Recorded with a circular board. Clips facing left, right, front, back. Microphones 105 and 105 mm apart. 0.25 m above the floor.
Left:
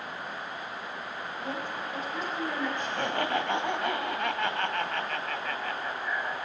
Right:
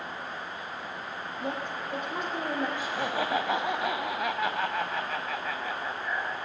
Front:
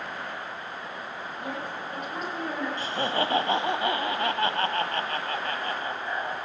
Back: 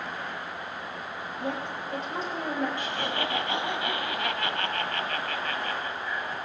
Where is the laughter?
10° right, 1.6 m.